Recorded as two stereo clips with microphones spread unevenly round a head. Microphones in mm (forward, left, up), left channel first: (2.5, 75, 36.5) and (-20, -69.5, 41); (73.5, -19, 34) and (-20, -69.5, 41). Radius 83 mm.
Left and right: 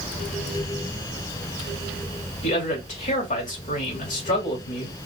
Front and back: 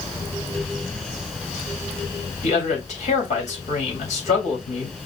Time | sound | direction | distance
2.4 | a man speaking | 40° left | 3 m